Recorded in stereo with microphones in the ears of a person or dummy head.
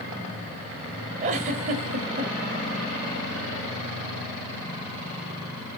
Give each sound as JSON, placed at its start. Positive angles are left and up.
{"t": 1.2, "sound": "a giggle", "side_deg": -40, "distance_m": 1.3}